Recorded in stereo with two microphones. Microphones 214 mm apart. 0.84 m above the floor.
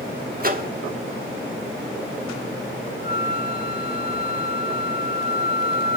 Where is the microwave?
45° right (ahead or behind), 1.1 m.